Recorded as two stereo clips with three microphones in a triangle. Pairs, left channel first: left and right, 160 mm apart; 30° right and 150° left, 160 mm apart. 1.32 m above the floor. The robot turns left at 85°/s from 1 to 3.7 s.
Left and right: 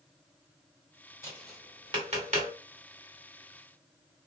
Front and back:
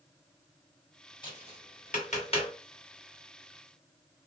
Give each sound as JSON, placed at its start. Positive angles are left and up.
{"t": 1.2, "sound": "tapping", "azimuth_deg": 25, "distance_m": 1.7}